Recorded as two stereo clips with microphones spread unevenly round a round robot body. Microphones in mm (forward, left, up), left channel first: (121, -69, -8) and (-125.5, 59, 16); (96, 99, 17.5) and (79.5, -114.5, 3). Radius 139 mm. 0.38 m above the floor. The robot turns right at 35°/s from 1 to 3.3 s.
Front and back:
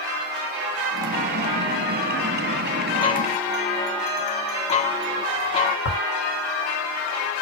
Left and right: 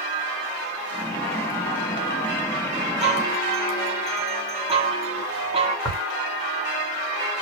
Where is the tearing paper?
10° left, 1.8 m.